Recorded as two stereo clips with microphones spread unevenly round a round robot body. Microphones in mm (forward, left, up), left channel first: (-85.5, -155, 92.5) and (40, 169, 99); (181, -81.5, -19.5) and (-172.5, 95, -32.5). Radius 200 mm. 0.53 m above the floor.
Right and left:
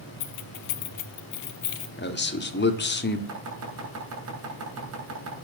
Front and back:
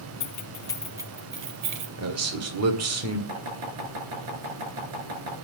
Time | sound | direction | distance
0.2 | keys jangling | 85° right | 1.4 m
2.0 | a man speaking | 165° right | 1.7 m
3.3 | chopping | 115° left | 7 m